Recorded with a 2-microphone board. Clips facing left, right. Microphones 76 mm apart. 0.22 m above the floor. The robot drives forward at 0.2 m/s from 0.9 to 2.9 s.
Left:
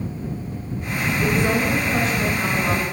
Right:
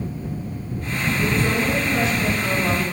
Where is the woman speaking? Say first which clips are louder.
Left 2 dB; 35° left (ahead or behind), 1.5 m; by 2.8 s 40° left (ahead or behind), 1.4 m.